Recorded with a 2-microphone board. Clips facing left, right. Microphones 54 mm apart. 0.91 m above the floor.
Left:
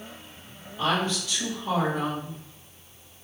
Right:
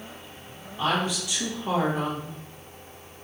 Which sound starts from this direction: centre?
A woman speaking, at 0.8 s.